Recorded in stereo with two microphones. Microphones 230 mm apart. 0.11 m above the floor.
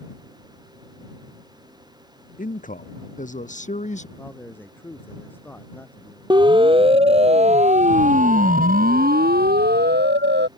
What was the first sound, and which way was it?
A man speaking, 35° left (ahead or behind).